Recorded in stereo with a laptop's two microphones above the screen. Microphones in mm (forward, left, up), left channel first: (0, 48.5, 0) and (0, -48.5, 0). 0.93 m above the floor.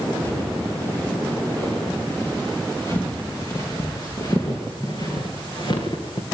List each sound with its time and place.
0.2 s footsteps: 20° left (ahead or behind), 9.5 m; by 6.2 s 55° left (ahead or behind), 5 m